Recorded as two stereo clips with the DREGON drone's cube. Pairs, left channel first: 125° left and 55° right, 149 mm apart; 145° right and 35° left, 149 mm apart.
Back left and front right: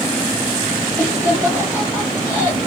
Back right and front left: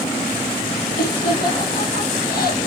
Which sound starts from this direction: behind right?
Laughter, at 1.0 s.